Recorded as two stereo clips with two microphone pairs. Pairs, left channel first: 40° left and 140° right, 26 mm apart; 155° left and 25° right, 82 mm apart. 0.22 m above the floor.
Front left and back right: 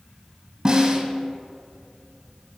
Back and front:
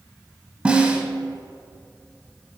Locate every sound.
0.7 s a snare drum: 90° right, 1.0 m